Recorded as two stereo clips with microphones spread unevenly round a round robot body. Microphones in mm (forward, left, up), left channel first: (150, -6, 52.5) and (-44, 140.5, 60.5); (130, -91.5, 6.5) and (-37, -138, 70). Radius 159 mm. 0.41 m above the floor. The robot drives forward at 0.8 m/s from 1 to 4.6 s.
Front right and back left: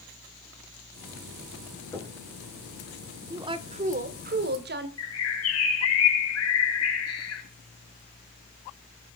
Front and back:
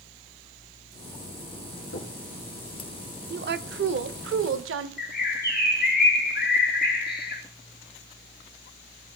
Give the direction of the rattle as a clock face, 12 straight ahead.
No rattle in this recording.